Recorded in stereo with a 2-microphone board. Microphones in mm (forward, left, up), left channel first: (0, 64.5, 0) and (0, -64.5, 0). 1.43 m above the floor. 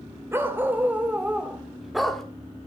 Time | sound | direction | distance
0.3 | a dog barking | 15° right (ahead or behind) | 2.5 m